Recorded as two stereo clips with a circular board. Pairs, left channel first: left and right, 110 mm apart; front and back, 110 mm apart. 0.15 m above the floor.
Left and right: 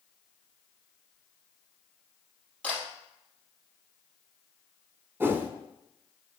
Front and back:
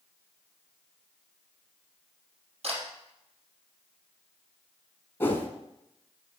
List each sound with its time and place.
2.6 s a camera shutter: 165° left, 4 m
5.2 s a whoosh: 45° right, 1.0 m